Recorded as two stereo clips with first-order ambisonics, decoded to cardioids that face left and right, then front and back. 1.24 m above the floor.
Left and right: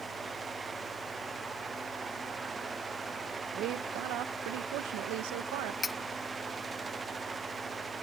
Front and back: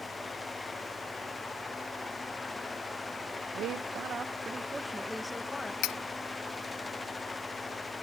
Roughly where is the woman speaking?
Behind right.